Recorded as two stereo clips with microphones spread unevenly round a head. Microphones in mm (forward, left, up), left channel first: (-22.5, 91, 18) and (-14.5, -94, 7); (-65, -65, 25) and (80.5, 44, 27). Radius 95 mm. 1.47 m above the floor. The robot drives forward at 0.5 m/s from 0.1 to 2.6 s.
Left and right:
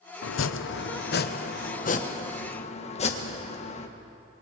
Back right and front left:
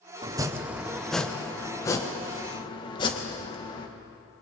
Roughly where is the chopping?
Left.